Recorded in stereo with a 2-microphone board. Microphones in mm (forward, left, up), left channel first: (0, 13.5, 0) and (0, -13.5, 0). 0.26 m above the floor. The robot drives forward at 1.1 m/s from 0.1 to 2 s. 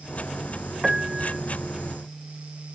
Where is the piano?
15° right (ahead or behind); by 1.4 s 20° right (ahead or behind).